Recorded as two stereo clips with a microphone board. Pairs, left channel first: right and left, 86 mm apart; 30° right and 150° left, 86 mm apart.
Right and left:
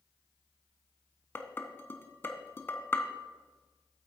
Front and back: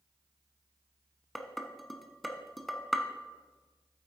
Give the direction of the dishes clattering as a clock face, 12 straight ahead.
4 o'clock.